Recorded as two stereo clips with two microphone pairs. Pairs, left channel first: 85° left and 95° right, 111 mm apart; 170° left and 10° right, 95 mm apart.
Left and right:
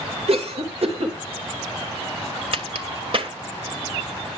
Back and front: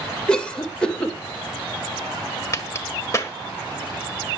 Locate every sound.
0.3 s a cough: 110° right, 3 m
2.5 s a crack: 130° right, 1.6 m